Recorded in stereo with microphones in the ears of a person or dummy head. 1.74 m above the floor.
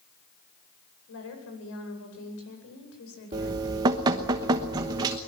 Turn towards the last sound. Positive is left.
turn(degrees=-20)  # may be behind; listen again after turning